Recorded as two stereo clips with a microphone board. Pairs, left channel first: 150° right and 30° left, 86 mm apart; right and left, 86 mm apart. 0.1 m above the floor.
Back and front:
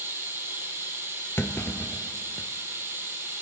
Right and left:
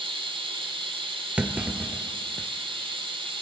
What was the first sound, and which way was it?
Running water, 90° left.